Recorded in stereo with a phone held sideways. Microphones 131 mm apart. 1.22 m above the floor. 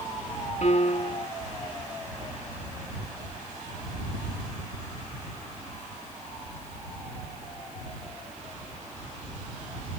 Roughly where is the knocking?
I don't hear knocking.